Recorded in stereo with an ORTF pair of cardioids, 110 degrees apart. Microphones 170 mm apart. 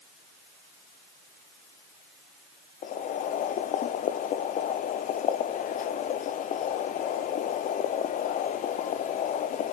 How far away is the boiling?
About 0.8 m.